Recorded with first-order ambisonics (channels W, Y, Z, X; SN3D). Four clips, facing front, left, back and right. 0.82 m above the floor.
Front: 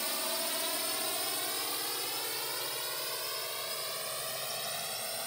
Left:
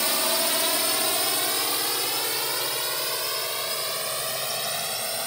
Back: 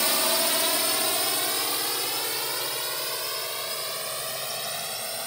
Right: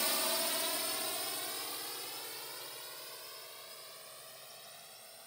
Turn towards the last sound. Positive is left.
turn(degrees=105)